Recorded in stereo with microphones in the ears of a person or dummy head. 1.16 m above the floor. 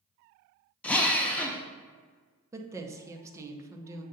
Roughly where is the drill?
Centre.